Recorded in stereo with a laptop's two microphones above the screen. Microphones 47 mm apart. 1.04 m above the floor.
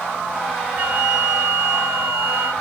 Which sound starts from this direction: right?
A flute, at 0.8 s.